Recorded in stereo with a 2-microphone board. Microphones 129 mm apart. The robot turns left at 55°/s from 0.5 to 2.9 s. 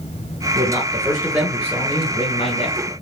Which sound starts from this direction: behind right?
A man speaking, at 0.6 s.